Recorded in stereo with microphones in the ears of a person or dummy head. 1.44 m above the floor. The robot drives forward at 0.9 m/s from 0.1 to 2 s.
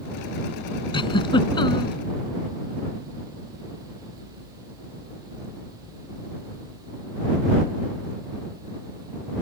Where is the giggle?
30° left (ahead or behind); by 1.9 s 25° left (ahead or behind).